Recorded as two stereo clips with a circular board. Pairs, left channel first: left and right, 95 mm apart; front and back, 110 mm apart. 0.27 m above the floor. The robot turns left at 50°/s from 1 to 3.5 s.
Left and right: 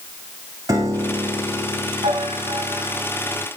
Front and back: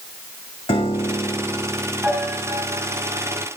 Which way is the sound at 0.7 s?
35° right.